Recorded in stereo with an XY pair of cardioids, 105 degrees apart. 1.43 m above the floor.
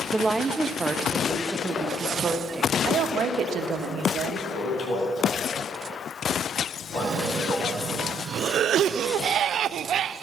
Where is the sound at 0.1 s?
20° right, 1.0 m; by 2.8 s 25° right, 2.5 m.